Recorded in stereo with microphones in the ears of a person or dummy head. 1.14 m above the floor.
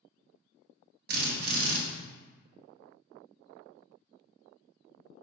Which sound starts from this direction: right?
A drill, at 1.1 s.